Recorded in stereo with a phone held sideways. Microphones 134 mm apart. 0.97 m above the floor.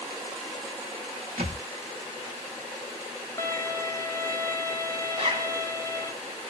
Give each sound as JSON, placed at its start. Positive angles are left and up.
{"t": 1.4, "sound": "a thud", "side_deg": -55, "distance_m": 1.2}
{"t": 3.4, "sound": "a violin", "side_deg": 20, "distance_m": 0.6}
{"t": 5.1, "sound": "a zipper", "side_deg": -50, "distance_m": 1.4}